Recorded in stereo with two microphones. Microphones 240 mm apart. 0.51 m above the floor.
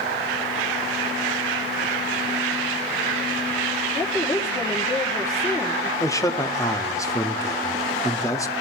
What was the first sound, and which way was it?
A woman speaking, 15° left (ahead or behind).